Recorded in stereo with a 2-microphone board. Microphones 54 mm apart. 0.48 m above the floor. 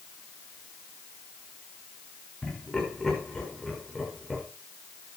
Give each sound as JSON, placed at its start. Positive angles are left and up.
{"t": 2.4, "sound": "laughter", "side_deg": 15, "distance_m": 7.0}